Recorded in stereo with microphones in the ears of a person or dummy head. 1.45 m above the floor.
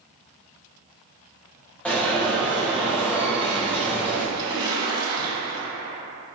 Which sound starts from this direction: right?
A splash, at 4.3 s.